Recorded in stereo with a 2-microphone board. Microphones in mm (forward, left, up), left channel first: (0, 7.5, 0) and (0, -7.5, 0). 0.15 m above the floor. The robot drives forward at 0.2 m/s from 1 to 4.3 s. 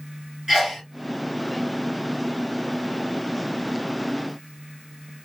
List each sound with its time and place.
0.5 s a sneeze: 25° right (ahead or behind), 2.0 m